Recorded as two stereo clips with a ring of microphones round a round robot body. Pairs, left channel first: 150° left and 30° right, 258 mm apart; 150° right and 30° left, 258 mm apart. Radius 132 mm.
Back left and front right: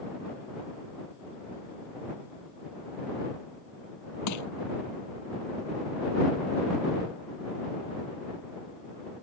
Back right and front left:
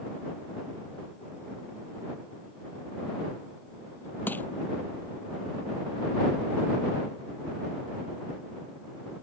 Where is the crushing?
125° left.